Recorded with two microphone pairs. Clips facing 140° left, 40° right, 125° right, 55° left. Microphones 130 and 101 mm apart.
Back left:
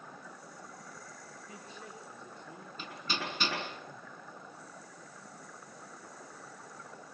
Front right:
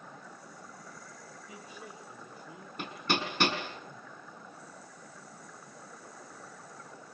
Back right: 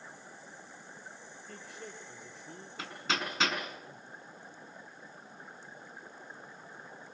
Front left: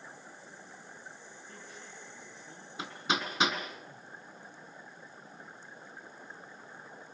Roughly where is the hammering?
Ahead right.